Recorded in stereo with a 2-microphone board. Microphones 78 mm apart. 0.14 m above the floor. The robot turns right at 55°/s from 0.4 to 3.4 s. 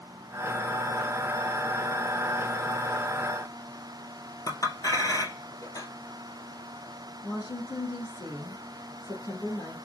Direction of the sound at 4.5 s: 50° left (ahead or behind).